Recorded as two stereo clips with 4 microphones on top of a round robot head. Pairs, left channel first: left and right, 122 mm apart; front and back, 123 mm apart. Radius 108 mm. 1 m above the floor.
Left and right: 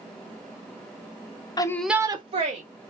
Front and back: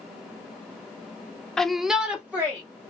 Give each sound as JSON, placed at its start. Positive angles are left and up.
{"t": 1.6, "sound": "a shout", "azimuth_deg": 80, "distance_m": 0.5}